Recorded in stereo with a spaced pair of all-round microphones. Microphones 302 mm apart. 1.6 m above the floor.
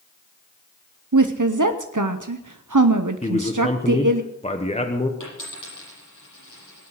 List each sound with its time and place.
1.1 s a woman speaking: 80° right, 0.8 m
3.2 s a man speaking: 20° left (ahead or behind), 1.3 m
5.2 s a dropped coin: 80° left, 10 m